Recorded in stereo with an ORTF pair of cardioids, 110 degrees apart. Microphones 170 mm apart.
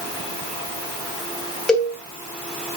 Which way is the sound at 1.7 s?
5° left.